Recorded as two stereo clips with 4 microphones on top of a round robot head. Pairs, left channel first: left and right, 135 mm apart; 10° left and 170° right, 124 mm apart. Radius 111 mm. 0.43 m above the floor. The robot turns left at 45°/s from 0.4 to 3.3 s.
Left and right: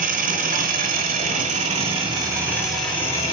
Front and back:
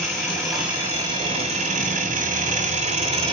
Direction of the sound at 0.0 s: 75° right.